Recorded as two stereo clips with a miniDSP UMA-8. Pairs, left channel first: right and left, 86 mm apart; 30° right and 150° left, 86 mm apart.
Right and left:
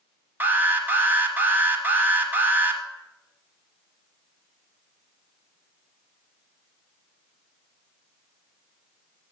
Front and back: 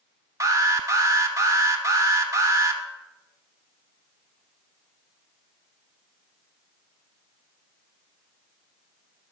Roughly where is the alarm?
Behind left.